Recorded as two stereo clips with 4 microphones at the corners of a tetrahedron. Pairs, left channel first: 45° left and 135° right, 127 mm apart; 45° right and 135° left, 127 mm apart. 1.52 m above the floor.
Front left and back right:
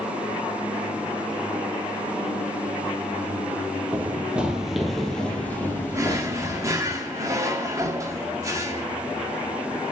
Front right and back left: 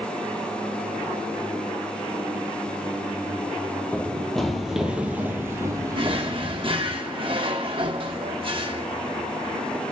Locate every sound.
3.9 s running footsteps: 100° right, 1.6 m; by 6.9 s 95° left, 2 m
5.9 s a drawer: 170° left, 1.4 m